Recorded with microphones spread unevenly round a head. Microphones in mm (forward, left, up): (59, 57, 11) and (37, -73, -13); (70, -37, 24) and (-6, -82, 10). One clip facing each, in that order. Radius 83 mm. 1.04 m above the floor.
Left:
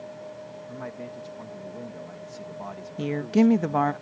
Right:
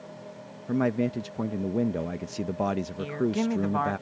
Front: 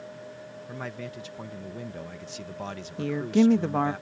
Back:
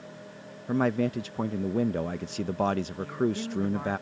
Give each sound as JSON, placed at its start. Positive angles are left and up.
{"t": 0.7, "sound": "a man speaking", "azimuth_deg": -120}
{"t": 3.0, "sound": "a woman speaking", "azimuth_deg": 35}